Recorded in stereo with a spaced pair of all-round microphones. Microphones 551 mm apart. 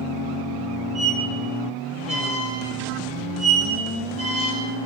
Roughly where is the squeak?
Right.